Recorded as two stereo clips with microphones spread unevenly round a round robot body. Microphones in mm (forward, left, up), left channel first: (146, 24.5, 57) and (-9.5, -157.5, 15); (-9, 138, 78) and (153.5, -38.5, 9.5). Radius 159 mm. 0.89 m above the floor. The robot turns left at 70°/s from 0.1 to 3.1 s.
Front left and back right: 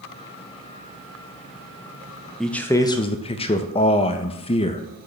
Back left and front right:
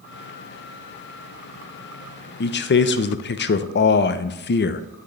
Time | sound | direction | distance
2.4 | a man speaking | 160° left | 0.5 m